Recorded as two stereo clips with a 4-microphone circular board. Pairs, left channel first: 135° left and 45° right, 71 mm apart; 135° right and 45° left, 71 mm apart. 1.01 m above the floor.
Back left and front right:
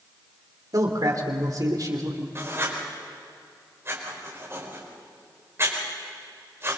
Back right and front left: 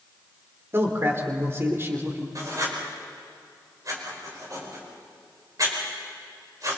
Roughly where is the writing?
Ahead.